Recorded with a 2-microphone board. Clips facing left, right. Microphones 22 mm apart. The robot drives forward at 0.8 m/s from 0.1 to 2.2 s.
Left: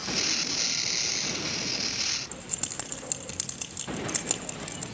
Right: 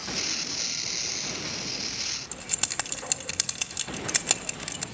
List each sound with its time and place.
2.3 s keys jangling: 40° right (ahead or behind), 3 m